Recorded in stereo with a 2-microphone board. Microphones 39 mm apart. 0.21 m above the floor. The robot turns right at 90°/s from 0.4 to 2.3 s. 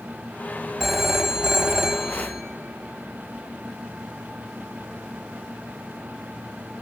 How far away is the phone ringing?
About 0.6 m.